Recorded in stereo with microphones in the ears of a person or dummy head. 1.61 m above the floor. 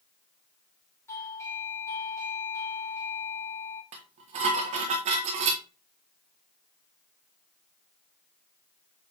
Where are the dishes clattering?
30° right (ahead or behind), 1.1 m.